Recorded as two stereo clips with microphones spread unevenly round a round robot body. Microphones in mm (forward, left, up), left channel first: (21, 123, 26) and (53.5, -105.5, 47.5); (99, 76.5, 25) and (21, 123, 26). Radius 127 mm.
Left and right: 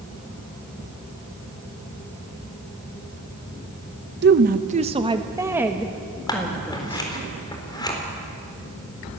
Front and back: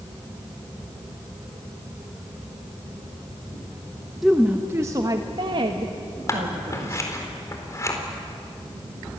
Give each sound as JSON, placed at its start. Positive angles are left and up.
{"t": 4.2, "sound": "a woman speaking", "azimuth_deg": -125, "distance_m": 0.9}
{"t": 6.3, "sound": "scissors", "azimuth_deg": 25, "distance_m": 4.0}